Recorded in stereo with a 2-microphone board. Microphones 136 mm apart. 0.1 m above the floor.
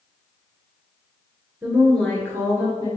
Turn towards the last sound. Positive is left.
turn(degrees=30)  # may be behind; listen again after turning